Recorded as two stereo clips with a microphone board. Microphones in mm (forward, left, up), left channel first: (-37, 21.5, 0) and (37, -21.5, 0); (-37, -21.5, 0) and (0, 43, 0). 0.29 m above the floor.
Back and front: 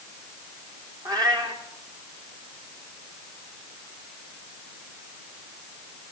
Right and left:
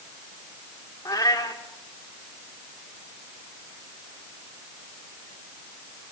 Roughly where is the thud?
No thud in this recording.